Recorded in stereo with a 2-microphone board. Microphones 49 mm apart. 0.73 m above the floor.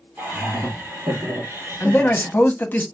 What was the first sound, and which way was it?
Laughter, 55° right (ahead or behind).